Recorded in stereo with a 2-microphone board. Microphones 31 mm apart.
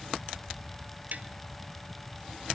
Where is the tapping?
60° right (ahead or behind), 1.8 m.